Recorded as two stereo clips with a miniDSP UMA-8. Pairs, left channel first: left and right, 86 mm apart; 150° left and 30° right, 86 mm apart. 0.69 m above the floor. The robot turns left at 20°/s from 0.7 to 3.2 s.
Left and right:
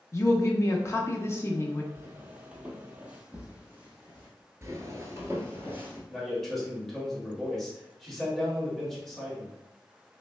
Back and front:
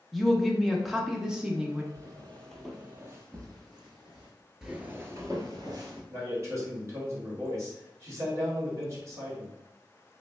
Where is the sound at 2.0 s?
155° right, 1.0 m; by 4.3 s 15° right, 1.6 m.